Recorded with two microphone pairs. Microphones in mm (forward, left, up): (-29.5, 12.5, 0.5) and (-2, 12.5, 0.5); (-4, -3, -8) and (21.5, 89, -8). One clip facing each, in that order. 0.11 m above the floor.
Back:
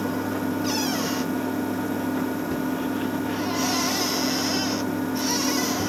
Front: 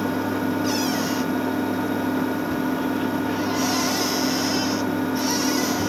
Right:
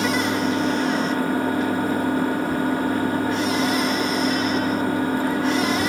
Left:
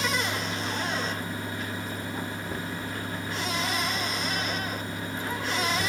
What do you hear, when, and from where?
0.0 s an engine running: 80° right